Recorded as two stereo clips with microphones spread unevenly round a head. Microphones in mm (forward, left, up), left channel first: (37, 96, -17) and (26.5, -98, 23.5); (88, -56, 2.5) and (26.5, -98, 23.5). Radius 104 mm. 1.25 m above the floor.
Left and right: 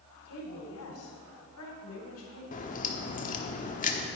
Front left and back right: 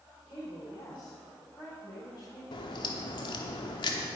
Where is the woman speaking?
95° left, 3.5 m.